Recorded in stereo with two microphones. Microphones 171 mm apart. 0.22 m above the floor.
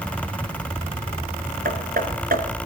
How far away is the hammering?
About 3 m.